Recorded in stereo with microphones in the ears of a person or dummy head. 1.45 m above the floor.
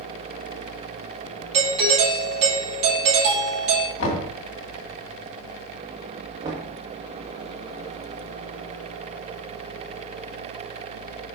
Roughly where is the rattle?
No rattle in this recording.